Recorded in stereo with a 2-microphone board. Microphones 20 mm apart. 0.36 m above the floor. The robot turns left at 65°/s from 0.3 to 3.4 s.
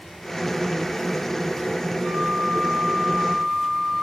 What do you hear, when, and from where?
2.0 s a flute: 95° right, 4 m; by 4.0 s 175° left, 4 m